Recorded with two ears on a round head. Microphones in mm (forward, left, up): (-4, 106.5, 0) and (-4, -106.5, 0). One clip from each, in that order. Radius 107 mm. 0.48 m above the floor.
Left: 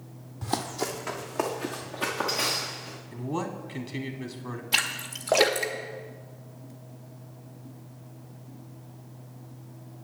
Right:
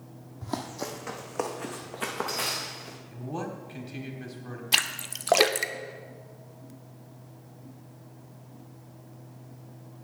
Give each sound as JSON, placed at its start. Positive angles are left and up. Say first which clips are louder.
{"t": 0.4, "sound": "running footsteps", "louder": "left 4 dB", "side_deg": 25, "distance_m": 1.1}
{"t": 3.1, "sound": "a man speaking", "louder": "left 3 dB", "side_deg": 10, "distance_m": 1.1}
{"t": 4.7, "sound": "a splash", "louder": "right 1 dB", "side_deg": -30, "distance_m": 0.6}